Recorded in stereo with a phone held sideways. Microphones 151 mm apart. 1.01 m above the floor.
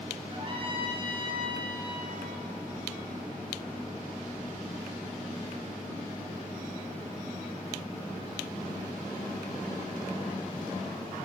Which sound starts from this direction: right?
A trumpet, at 0.3 s.